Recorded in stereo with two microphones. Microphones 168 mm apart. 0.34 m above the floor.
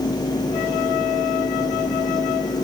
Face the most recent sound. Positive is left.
No sound to turn to.